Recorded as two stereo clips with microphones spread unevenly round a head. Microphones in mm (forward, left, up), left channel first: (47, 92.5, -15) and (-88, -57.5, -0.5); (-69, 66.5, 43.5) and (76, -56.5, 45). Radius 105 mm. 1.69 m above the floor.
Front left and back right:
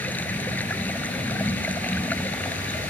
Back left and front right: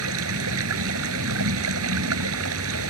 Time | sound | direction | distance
0.0 | running water | 35° right | ?